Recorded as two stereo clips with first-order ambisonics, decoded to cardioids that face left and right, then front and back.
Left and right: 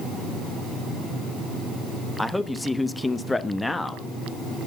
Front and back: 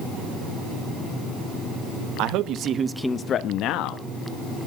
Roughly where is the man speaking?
Behind.